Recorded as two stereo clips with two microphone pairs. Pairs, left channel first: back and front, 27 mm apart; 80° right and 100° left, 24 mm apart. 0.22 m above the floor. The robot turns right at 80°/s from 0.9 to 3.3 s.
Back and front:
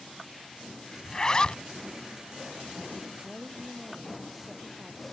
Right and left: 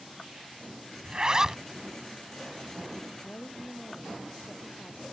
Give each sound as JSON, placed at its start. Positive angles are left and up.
{"t": 1.0, "sound": "a zipper", "azimuth_deg": 115}
{"t": 3.2, "sound": "a woman speaking", "azimuth_deg": -85}